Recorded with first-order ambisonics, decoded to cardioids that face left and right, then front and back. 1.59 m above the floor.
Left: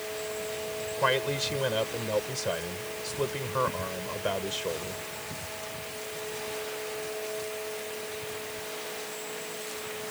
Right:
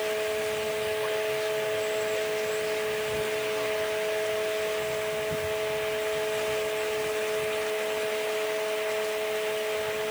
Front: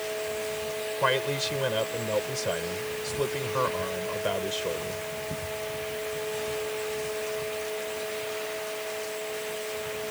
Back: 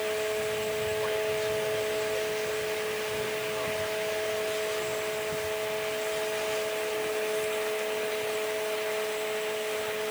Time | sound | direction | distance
1.0 | a man speaking | 45° left | ?